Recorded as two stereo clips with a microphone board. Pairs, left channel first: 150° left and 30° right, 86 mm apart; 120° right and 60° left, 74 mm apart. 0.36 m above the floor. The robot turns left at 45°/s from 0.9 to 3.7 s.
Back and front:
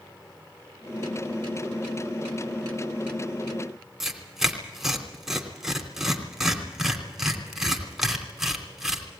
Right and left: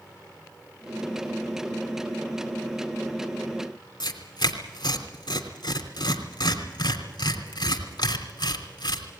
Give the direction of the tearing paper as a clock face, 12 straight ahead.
4 o'clock.